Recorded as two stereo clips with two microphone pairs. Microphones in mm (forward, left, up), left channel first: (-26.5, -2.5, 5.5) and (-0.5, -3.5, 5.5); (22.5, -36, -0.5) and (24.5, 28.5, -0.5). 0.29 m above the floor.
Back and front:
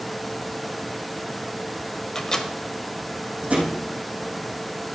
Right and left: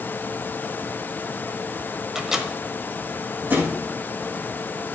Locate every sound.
2.1 s a microwave: 155° left, 1.1 m
3.5 s a thud: 30° left, 5 m